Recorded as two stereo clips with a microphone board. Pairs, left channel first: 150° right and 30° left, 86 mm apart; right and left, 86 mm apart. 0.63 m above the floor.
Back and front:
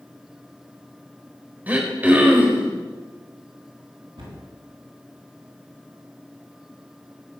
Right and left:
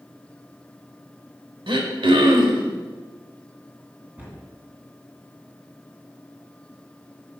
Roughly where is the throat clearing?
Left.